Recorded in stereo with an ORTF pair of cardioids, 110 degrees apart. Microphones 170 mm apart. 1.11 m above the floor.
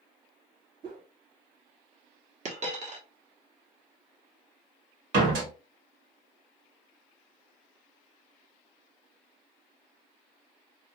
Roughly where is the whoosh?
Ahead right.